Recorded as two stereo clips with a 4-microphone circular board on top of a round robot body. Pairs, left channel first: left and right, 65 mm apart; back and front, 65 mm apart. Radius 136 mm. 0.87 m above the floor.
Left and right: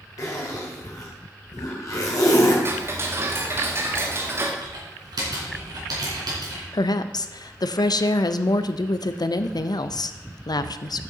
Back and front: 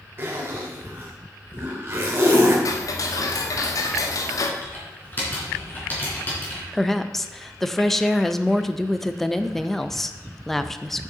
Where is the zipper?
55° left, 2.5 m.